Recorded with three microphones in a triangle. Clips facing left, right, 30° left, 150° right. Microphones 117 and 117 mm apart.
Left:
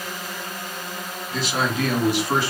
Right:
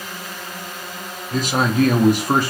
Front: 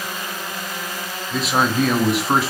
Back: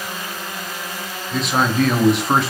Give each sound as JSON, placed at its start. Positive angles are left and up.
{"t": 1.3, "sound": "a man speaking", "azimuth_deg": -55, "distance_m": 0.9}